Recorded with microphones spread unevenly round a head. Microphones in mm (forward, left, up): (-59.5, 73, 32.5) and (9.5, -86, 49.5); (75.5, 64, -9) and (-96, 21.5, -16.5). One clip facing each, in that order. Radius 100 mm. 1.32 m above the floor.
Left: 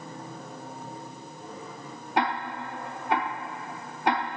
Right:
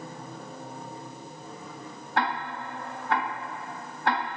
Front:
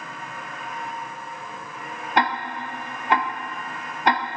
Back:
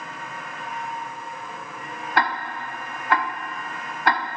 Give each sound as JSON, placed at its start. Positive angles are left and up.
{"t": 2.2, "sound": "ticking", "azimuth_deg": 40, "distance_m": 0.6}